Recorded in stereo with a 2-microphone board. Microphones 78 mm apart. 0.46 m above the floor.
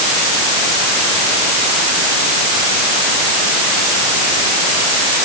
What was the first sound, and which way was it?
Only background noise.